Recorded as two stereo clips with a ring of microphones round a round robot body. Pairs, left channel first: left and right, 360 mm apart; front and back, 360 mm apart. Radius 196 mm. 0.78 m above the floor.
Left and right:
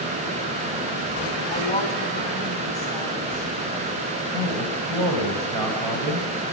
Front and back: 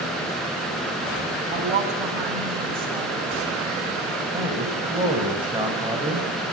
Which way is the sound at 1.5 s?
160° left.